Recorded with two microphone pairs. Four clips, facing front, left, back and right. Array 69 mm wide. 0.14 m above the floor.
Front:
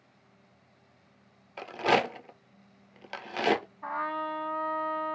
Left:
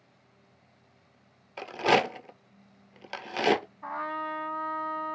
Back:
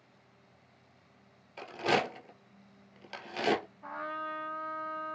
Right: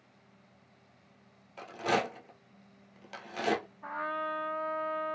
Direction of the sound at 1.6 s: 55° left.